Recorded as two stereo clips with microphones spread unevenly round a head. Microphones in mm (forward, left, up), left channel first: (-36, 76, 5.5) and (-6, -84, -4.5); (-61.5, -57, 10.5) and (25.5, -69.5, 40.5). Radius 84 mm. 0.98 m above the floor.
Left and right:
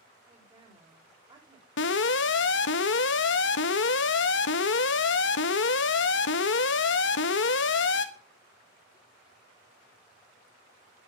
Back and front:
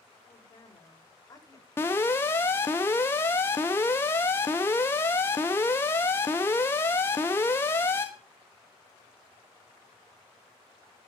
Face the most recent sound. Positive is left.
turn(degrees=110)